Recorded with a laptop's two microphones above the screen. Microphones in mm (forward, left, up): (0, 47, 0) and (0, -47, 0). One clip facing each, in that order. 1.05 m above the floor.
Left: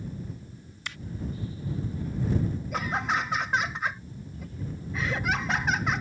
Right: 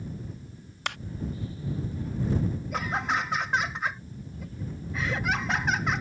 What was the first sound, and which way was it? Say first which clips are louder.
A clap: right 7 dB; 65° right (ahead or behind).